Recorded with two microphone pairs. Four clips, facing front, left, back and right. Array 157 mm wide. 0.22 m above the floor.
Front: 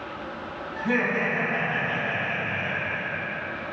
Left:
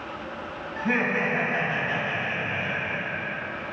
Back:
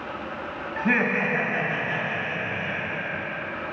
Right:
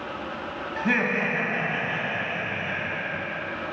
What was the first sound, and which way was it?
Laughter, 135° right.